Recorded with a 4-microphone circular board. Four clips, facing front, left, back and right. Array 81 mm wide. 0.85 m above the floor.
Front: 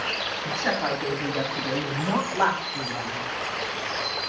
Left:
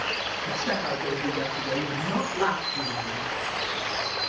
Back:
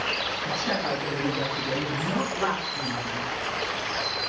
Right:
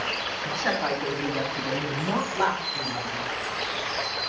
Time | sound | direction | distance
0.5 | a woman speaking | 45° right | 7.5 m